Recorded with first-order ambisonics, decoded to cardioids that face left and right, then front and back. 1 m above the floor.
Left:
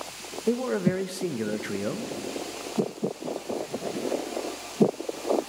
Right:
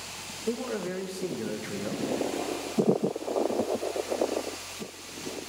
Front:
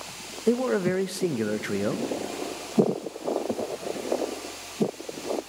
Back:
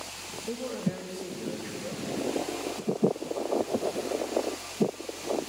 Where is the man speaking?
20° left, 0.5 m.